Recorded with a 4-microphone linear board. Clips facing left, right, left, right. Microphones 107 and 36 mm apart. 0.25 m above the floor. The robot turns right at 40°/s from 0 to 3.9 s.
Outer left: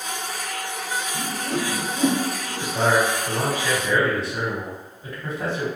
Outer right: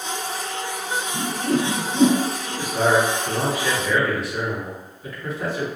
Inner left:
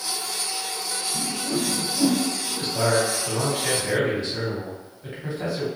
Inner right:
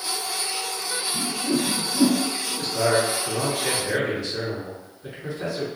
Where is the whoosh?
45° right (ahead or behind), 0.6 m; by 2.2 s 80° right, 0.6 m.